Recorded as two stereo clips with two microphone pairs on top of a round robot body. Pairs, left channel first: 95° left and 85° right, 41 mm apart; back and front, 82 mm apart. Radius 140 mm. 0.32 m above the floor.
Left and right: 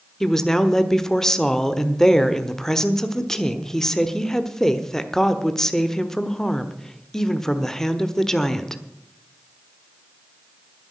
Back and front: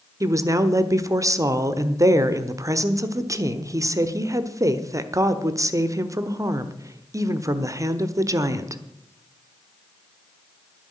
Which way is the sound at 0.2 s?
20° left.